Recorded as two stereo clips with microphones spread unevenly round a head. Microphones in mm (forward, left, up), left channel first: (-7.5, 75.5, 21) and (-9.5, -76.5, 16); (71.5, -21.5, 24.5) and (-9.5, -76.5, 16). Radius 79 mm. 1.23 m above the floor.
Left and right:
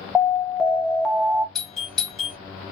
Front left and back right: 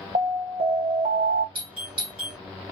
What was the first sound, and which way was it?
An alarm, straight behind.